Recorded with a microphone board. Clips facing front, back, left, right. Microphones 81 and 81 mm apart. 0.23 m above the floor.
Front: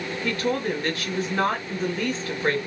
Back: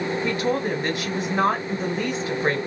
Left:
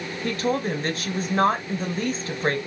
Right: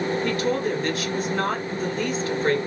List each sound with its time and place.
0.2 s a woman speaking: 115° left, 1.3 m